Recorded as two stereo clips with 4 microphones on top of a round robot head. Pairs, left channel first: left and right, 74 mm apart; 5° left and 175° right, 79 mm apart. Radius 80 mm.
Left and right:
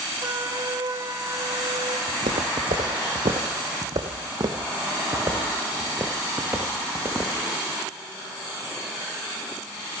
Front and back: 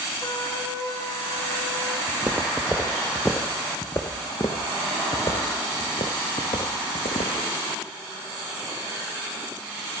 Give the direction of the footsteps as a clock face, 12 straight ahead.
3 o'clock.